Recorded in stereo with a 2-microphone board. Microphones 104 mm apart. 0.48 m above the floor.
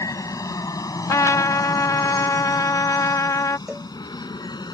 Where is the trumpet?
35° left (ahead or behind).